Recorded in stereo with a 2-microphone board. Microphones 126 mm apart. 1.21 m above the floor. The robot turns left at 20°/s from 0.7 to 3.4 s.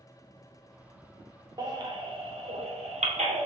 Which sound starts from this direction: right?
A baby crying, at 1.6 s.